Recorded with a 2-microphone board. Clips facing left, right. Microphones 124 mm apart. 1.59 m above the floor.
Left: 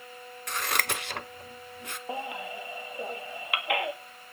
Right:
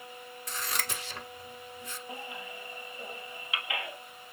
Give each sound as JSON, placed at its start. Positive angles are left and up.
{"t": 0.5, "sound": "scissors", "side_deg": 65, "distance_m": 0.7}
{"t": 2.1, "sound": "a baby crying", "side_deg": 60, "distance_m": 1.6}